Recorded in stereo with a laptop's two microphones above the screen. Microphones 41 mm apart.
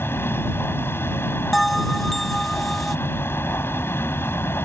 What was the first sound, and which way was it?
A machine running, 70° left (ahead or behind).